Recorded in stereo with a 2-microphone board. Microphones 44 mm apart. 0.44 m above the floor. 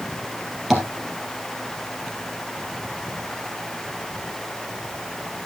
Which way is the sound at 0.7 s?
5° right (ahead or behind).